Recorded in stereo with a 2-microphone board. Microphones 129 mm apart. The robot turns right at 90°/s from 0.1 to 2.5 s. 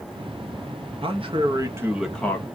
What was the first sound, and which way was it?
A man speaking, 95° right.